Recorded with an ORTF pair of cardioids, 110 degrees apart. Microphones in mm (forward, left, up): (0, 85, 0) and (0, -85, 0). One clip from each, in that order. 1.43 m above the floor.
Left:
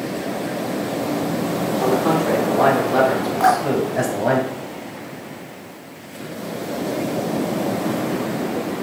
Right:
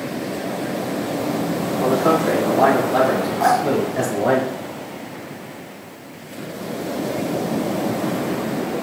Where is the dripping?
20° left, 2.5 m.